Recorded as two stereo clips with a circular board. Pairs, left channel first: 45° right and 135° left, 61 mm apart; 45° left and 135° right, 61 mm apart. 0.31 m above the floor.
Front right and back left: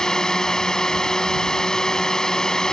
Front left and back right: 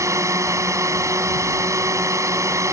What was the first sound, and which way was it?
A drone, 125° right.